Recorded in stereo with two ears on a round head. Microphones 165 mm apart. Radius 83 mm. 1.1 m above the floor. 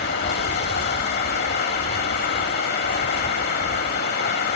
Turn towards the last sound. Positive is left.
turn(degrees=60)  # may be behind; listen again after turning